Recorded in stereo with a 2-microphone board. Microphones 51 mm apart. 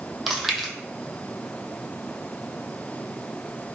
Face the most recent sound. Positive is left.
turn(degrees=0)  # may be behind; listen again after turning